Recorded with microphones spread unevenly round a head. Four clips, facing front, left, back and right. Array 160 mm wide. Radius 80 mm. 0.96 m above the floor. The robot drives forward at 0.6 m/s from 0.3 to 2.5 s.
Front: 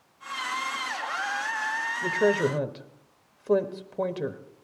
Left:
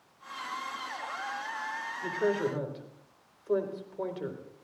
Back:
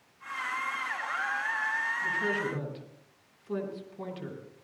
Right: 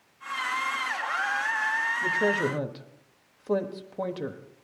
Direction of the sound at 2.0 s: 30° right.